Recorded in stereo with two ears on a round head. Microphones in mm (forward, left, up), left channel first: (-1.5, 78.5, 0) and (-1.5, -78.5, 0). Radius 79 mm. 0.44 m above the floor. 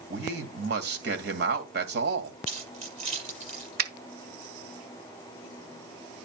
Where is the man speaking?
65° right (ahead or behind), 2 m.